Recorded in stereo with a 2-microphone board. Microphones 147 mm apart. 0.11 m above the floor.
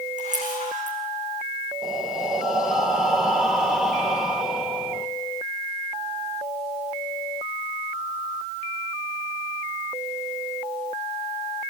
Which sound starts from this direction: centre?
Breathing, at 1.8 s.